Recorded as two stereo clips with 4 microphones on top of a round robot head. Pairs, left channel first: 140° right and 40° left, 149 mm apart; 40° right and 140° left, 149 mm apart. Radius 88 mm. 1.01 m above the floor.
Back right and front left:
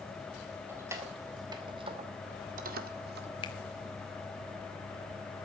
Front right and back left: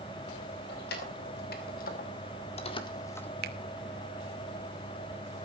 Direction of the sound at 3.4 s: 160° left.